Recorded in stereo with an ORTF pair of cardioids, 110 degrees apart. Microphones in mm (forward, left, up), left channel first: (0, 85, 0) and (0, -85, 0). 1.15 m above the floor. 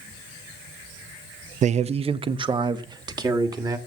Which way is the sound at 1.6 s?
45° right.